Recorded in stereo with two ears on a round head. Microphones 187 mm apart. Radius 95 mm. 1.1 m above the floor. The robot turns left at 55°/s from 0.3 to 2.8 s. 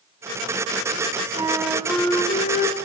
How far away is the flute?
About 3 m.